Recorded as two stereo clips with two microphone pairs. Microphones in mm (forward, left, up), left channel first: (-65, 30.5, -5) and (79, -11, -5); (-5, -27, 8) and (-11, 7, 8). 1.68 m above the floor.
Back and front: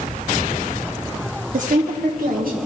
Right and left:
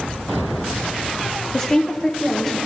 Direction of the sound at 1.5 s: 15° right.